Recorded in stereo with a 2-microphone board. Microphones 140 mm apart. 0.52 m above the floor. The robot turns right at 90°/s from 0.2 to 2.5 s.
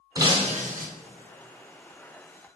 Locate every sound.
0.1 s breaking glass: 150° right, 0.5 m; by 0.9 s 90° right, 0.5 m